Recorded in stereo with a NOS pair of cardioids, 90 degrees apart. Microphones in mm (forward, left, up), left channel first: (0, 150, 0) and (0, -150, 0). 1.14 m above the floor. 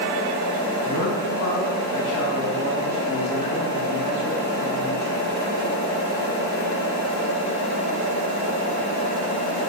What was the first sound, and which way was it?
A man speaking, 65° left.